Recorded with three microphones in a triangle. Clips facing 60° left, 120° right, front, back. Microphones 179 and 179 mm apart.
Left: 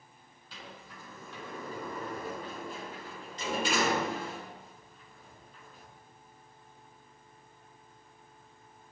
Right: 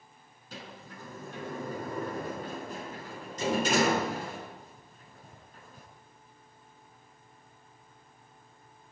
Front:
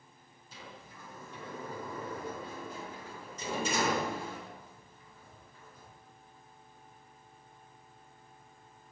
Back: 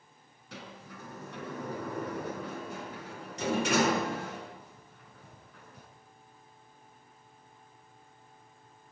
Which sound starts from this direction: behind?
A sliding door, at 0.5 s.